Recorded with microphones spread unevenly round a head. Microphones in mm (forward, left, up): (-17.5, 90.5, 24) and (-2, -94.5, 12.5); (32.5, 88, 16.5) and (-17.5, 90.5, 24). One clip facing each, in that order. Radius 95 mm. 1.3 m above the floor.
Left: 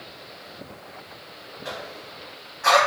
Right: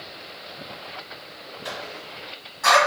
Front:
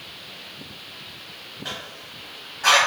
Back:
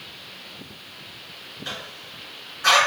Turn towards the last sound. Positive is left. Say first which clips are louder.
# even, even
turn(degrees=-40)